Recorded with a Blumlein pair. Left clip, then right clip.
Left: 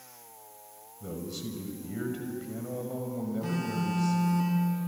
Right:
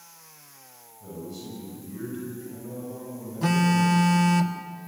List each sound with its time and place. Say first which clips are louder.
1.0 s a man speaking: left 1 dB; 65° left, 6.5 m
3.4 s a phone buzzing: right 14 dB; 35° right, 1.8 m